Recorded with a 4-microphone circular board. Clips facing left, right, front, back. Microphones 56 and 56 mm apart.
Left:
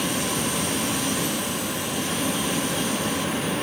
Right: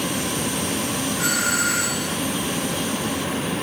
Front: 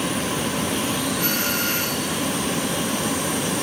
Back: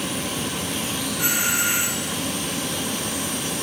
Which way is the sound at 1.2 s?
105° right.